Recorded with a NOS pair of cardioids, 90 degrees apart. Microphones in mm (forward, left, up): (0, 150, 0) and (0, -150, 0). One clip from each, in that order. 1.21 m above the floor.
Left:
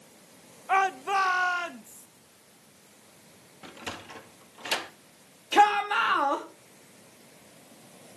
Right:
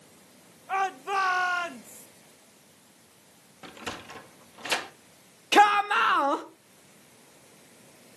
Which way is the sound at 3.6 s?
10° right.